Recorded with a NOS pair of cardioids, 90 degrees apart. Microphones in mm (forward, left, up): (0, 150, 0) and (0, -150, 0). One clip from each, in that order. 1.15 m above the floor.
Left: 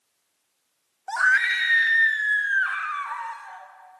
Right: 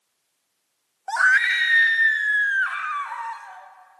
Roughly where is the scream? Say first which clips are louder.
Right 2 dB; ahead.